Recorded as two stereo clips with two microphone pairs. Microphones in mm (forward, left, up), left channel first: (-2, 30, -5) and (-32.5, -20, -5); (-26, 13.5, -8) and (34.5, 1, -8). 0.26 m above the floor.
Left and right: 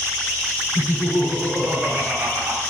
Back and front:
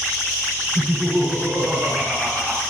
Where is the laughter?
105° right, 3.5 m; by 2.6 s 120° right, 2.5 m.